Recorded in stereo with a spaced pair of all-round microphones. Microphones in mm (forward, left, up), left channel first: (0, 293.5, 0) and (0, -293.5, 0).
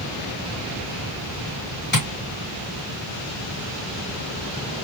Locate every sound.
1.9 s tapping: 20° left (ahead or behind), 1.4 m